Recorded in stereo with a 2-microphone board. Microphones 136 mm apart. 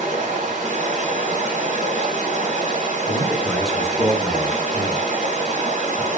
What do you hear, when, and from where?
0.0 s running water: 70° right (ahead or behind), 0.8 m
3.1 s a man speaking: centre (ahead or behind), 1.2 m